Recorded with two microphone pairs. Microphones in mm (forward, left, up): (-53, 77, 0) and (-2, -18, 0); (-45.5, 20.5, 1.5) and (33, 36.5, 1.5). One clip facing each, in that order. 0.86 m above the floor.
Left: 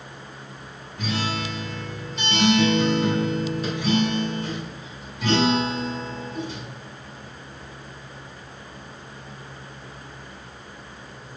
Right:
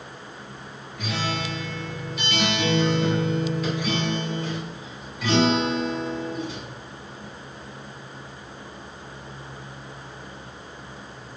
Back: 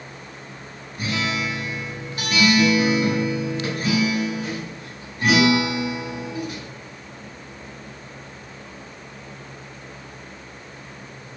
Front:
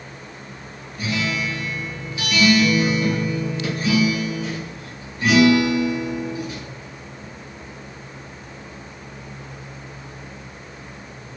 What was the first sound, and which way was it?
A guitar, 175° left.